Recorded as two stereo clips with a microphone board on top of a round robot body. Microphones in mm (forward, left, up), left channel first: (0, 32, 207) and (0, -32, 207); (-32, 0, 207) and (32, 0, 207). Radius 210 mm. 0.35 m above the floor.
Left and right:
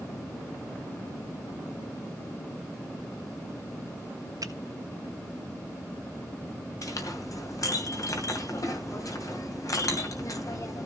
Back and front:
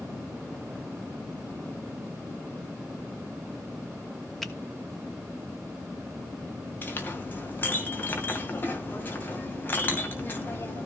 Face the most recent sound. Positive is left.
turn(degrees=120)